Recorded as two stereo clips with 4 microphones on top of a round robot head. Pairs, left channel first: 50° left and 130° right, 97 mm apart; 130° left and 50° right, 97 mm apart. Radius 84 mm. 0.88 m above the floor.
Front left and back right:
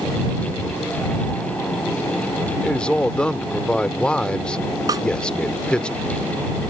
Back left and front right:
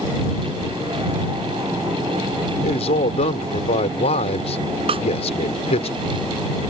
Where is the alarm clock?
No alarm clock in this recording.